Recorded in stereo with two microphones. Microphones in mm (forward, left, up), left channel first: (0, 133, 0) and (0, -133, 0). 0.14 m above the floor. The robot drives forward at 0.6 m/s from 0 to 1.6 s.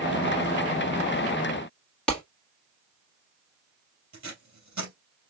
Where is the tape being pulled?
70° right (ahead or behind), 3 m.